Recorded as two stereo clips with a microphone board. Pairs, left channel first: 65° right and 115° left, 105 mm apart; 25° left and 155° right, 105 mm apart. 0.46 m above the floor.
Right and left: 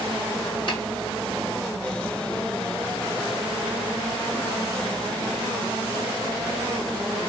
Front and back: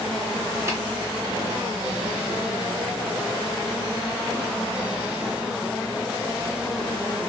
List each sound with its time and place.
0.7 s tapping: 100° right, 2.5 m